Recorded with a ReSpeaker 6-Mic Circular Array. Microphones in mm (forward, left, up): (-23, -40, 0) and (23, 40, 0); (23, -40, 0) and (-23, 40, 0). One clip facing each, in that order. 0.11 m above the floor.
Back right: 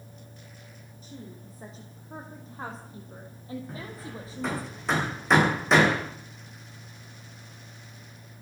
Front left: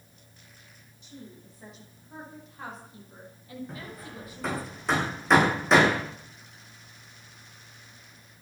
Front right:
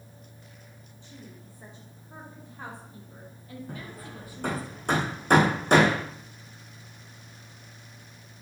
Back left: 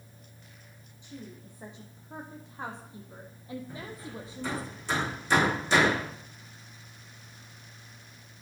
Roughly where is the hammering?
Ahead right.